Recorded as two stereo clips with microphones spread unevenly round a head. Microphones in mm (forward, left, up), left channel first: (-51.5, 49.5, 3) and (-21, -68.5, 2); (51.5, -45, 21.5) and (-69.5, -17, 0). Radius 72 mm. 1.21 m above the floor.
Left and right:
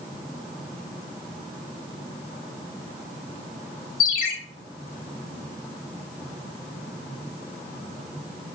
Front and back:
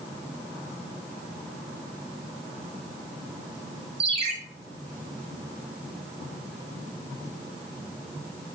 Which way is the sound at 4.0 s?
110° left.